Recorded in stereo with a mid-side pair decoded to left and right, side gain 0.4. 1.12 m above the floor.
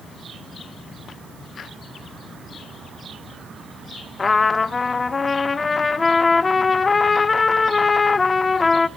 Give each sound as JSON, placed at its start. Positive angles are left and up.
{"t": 4.2, "sound": "a trumpet", "azimuth_deg": 35, "distance_m": 0.6}